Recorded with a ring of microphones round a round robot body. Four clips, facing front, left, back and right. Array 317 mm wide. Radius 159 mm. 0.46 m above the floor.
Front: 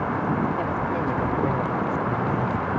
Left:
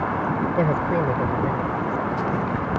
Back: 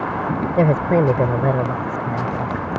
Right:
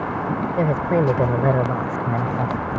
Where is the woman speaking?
Straight behind; by 2.7 s 95° right.